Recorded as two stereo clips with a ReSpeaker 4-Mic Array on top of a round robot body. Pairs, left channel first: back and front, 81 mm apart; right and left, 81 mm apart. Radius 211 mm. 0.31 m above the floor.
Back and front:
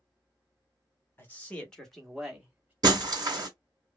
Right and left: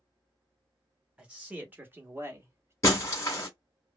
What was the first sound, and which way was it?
A man speaking, 150° left.